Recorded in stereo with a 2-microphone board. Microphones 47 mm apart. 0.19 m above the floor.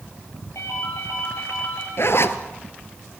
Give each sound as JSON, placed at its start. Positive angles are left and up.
{"t": 0.6, "sound": "a ringtone", "side_deg": 80, "distance_m": 9.0}
{"t": 2.0, "sound": "a zipper", "side_deg": 60, "distance_m": 1.4}